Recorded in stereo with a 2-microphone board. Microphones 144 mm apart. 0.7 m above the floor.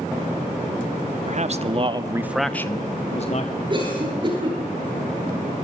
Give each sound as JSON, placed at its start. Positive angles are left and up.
{"t": 1.2, "sound": "a man speaking", "side_deg": -55, "distance_m": 1.8}
{"t": 3.7, "sound": "a cough", "side_deg": -35, "distance_m": 9.5}